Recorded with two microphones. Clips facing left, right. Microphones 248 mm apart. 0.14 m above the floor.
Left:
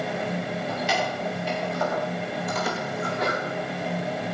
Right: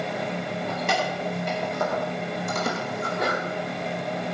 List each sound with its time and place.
0.7 s keys jangling: 55° right (ahead or behind), 6.5 m; by 3.2 s 45° right (ahead or behind), 4.5 m
3.0 s a sneeze: 55° right (ahead or behind), 9 m